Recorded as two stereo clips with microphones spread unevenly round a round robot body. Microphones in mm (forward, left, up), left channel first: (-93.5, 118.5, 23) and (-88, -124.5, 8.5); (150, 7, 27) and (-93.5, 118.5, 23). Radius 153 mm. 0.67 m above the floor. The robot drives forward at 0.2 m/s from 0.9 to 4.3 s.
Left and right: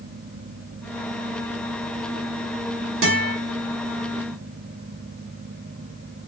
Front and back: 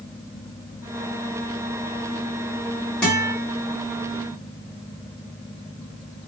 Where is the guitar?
110° right, 1.3 m; by 3.4 s 115° right, 1.4 m.